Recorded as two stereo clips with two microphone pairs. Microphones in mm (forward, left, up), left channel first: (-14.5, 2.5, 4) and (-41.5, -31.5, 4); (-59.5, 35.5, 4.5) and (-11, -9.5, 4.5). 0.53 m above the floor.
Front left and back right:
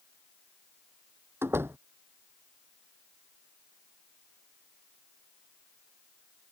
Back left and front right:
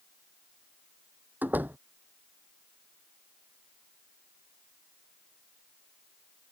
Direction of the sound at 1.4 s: 105° right.